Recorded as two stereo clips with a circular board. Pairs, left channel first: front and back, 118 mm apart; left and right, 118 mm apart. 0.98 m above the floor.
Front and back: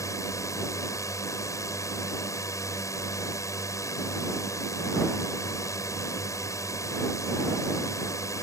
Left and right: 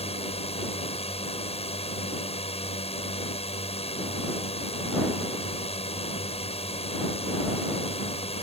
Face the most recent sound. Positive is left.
turn(degrees=65)